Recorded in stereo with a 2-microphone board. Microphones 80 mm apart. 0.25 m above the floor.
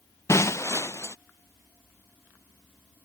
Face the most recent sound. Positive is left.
turn(degrees=35)  # may be behind; listen again after turning